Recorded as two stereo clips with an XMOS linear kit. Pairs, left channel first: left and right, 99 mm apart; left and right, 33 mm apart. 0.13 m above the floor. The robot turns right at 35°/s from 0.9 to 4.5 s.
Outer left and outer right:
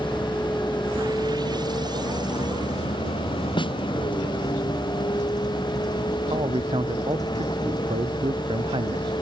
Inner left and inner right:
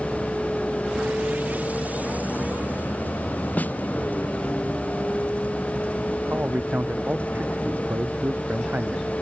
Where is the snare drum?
50° left (ahead or behind); by 3.8 s 60° left (ahead or behind).